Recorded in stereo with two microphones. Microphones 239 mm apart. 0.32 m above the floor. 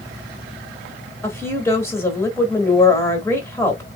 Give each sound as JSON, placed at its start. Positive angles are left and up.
{"t": 1.2, "sound": "a woman speaking", "side_deg": 10, "distance_m": 0.9}